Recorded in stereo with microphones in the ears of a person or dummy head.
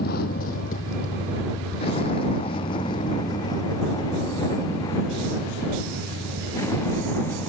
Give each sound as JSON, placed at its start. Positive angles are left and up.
{"t": 0.0, "sound": "a vehicle", "side_deg": 50}